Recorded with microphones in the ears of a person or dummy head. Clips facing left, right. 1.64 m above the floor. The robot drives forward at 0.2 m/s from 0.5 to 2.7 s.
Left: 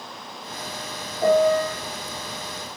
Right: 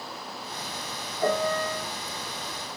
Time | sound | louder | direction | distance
1.2 | a piano | left 8 dB | 20° left (ahead or behind) | 1.1 m